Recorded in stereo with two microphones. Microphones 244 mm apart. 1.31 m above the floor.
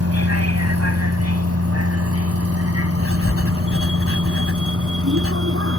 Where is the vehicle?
85° right; by 5.8 s 60° right (ahead or behind).